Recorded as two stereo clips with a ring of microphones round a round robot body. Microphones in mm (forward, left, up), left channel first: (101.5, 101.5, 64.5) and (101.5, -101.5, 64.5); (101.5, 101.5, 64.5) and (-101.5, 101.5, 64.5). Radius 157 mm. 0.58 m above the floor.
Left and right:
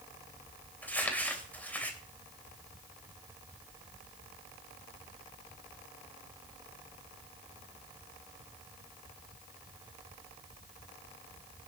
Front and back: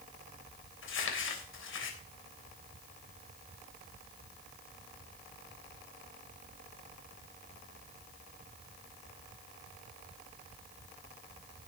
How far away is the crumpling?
About 3 m.